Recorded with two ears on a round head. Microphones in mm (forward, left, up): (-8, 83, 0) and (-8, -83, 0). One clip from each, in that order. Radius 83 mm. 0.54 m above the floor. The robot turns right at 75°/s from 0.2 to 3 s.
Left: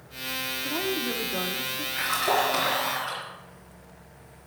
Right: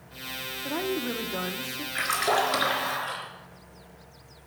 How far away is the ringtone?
I don't hear a ringtone.